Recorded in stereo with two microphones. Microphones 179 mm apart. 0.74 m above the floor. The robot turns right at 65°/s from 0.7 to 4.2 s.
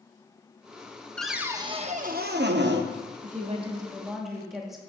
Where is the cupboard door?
175° left, 0.6 m; by 2.9 s 75° right, 0.6 m.